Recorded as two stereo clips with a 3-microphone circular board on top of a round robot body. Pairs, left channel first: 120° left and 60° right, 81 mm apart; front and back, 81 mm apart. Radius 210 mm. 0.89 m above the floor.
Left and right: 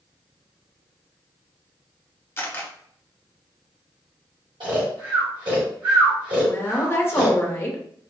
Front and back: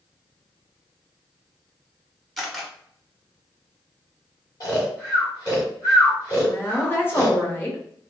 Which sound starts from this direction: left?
A camera shutter, at 2.4 s.